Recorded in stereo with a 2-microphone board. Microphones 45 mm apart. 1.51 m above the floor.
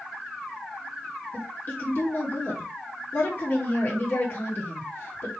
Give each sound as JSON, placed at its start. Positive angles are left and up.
{"t": 1.3, "sound": "a woman speaking", "side_deg": 55, "distance_m": 3.5}